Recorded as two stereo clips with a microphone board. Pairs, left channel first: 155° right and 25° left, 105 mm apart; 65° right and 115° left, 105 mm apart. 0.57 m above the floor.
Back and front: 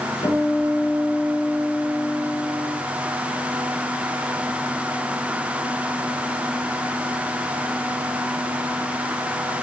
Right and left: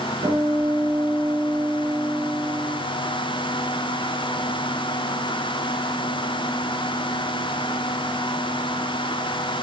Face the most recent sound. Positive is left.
turn(degrees=165)